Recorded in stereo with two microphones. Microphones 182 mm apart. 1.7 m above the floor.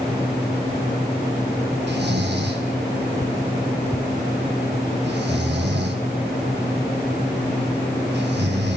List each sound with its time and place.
1.9 s snoring: 70° right (ahead or behind), 1.8 m